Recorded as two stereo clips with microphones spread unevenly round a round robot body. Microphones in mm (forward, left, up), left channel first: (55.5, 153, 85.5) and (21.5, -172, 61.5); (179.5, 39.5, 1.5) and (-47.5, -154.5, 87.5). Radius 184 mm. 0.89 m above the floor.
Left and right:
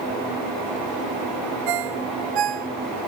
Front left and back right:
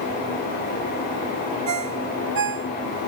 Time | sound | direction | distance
1.7 | a ringtone | 115° right | ?